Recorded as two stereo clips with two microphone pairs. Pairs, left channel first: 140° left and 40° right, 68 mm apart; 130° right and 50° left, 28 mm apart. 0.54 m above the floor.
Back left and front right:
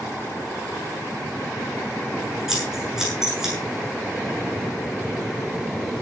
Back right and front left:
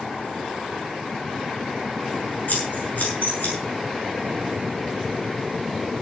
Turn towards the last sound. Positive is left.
turn(degrees=-125)